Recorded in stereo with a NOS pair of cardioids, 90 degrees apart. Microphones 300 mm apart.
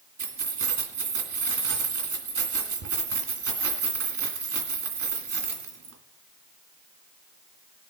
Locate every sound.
0.2 s keys jangling: 50° right, 2.5 m